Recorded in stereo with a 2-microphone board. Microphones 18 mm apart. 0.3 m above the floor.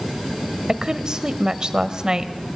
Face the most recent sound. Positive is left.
turn(degrees=-35)  # may be behind; listen again after turning